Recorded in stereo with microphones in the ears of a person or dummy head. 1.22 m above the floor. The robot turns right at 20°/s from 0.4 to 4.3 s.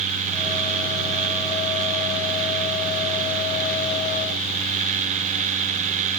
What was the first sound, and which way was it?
Only background noise.